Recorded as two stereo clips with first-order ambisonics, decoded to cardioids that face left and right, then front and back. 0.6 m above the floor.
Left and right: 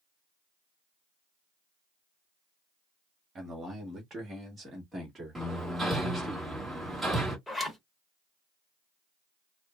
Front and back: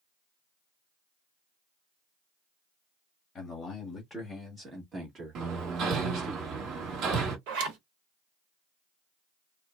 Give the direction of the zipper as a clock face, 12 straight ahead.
6 o'clock.